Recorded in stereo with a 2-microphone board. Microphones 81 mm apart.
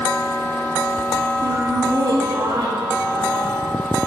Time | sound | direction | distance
1.4 | laughter | 55° right (ahead or behind) | 2.5 m